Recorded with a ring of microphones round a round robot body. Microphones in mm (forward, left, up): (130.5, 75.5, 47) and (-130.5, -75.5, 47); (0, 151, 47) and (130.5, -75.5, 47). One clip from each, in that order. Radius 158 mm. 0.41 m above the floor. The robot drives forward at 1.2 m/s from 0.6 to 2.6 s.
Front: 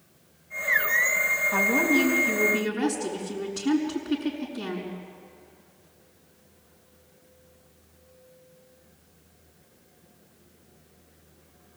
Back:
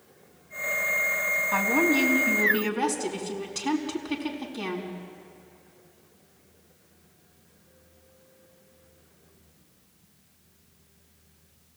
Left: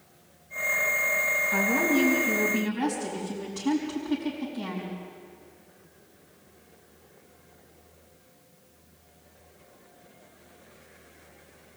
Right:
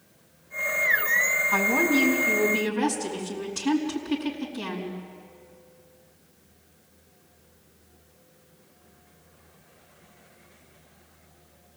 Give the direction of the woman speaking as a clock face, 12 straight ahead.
4 o'clock.